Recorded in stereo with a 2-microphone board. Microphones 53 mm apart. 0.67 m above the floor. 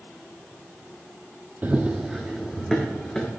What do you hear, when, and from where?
1.6 s running footsteps: 35° right (ahead or behind), 1.1 m; by 3.3 s 10° left (ahead or behind), 3 m